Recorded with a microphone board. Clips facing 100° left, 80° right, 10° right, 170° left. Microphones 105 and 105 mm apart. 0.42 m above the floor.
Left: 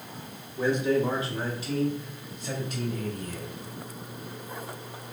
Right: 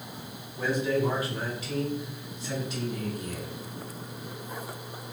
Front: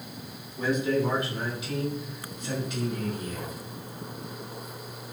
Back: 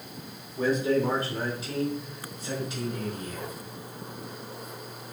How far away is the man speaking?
About 1.5 m.